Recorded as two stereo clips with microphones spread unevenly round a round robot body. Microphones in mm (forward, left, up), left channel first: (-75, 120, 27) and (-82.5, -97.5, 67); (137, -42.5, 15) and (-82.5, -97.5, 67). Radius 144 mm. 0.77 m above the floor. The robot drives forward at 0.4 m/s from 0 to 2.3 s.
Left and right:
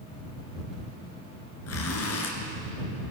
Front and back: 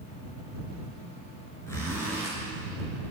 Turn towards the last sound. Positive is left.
turn(degrees=105)